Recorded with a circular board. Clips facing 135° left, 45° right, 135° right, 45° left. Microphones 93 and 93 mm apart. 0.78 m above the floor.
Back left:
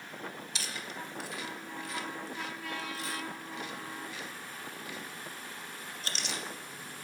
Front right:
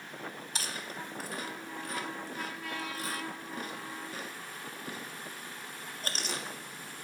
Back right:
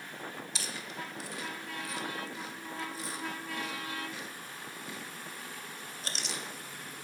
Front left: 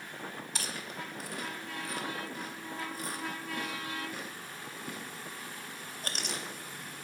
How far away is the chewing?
About 0.5 m.